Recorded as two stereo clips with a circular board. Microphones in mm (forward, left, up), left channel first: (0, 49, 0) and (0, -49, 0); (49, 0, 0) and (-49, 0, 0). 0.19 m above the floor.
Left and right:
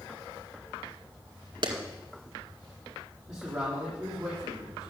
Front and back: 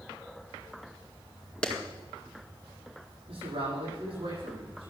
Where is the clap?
75° right, 1.8 m.